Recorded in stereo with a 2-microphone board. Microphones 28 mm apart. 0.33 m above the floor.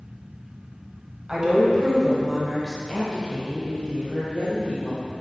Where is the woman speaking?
25° right (ahead or behind), 1.5 m; by 5.0 s 45° left (ahead or behind), 1.8 m.